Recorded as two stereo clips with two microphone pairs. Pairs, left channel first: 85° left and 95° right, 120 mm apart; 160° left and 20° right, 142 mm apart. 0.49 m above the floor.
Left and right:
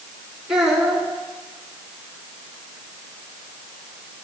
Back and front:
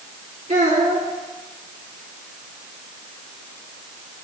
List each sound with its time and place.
0.5 s a child speaking: 10° right, 3.5 m